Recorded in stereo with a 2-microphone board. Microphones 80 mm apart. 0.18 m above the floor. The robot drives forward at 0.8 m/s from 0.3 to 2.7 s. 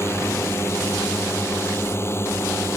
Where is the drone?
35° left (ahead or behind); by 2.8 s 30° left (ahead or behind).